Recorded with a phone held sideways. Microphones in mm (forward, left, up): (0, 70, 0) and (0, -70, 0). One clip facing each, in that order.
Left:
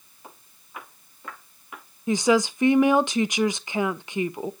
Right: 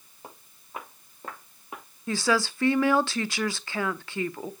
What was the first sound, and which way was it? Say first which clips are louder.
Footsteps: right 1 dB; 40° right (ahead or behind).